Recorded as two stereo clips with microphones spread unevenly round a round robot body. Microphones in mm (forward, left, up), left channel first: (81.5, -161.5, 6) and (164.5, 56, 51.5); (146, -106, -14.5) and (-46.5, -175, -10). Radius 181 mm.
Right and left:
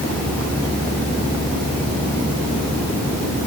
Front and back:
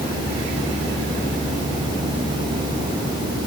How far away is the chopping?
No chopping in this recording.